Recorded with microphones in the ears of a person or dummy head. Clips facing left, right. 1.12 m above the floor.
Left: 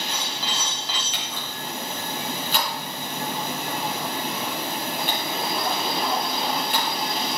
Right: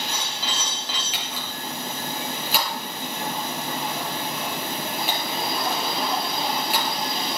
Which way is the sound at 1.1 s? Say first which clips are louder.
Even; centre (ahead or behind).